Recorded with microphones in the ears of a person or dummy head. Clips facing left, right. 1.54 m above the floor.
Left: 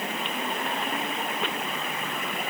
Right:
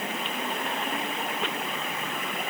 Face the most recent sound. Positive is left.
No sound to turn to.